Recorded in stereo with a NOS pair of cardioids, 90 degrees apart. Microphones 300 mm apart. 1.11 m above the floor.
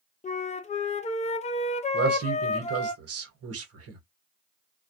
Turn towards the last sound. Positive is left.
turn(degrees=-55)